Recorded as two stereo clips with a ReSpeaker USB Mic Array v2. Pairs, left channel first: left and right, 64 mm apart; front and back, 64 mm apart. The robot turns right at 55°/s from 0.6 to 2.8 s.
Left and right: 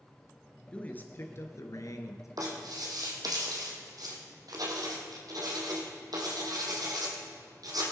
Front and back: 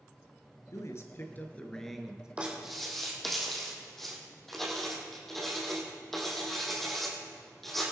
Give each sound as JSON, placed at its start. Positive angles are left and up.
{"t": 0.7, "sound": "a man speaking", "azimuth_deg": 20, "distance_m": 1.9}
{"t": 2.4, "sound": "writing", "azimuth_deg": -110, "distance_m": 3.0}